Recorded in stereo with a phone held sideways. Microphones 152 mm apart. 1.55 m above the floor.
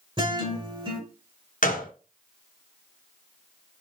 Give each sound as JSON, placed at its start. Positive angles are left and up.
{"t": 0.2, "sound": "a guitar", "side_deg": -35, "distance_m": 1.7}
{"t": 1.6, "sound": "a gunshot", "side_deg": 60, "distance_m": 0.9}